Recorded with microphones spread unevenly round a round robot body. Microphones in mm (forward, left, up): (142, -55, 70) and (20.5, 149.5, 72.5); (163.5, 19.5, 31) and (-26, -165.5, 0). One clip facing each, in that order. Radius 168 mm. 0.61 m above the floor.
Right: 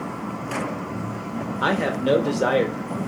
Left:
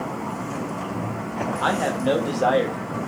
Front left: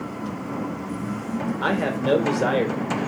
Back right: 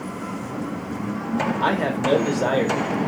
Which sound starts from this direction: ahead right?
A man speaking, at 1.6 s.